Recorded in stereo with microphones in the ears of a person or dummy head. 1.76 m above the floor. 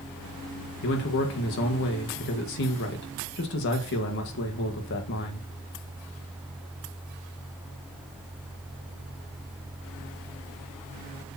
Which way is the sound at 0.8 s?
60° left (ahead or behind).